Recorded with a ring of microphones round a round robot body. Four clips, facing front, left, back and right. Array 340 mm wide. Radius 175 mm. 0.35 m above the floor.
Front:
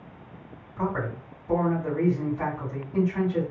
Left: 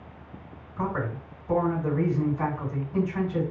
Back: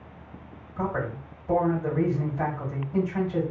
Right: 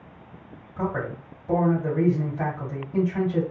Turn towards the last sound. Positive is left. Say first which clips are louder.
# right 1 dB, even
turn(degrees=-145)